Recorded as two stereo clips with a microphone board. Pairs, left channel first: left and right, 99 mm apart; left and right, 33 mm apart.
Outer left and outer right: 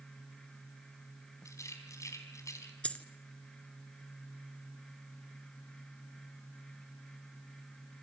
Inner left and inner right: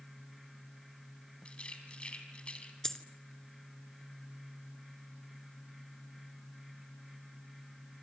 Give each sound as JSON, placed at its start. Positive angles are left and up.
{"t": 1.4, "sound": "a rattle", "side_deg": 30, "distance_m": 3.5}
{"t": 2.8, "sound": "a dropped coin", "side_deg": 15, "distance_m": 1.2}